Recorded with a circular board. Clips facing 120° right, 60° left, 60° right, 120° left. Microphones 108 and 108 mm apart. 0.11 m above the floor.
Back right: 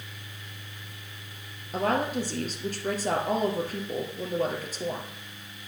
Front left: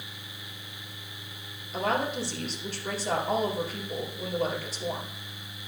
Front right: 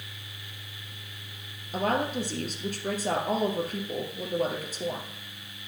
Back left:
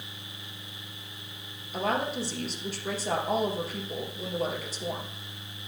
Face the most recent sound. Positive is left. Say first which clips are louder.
# back right 2 dB, front right 2 dB
turn(degrees=-90)